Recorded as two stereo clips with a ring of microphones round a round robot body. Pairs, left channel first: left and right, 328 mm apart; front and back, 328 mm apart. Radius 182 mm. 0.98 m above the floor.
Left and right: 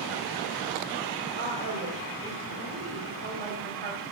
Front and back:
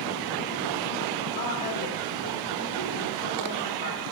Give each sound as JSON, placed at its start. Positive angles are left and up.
{"t": 1.4, "sound": "a woman speaking", "azimuth_deg": -30, "distance_m": 4.0}